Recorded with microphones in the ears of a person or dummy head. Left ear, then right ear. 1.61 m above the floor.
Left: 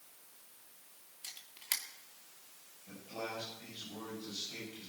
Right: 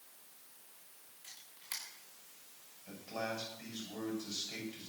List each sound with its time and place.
1.2 s a camera shutter: 30° left (ahead or behind), 2 m
2.9 s a man speaking: 55° right (ahead or behind), 8 m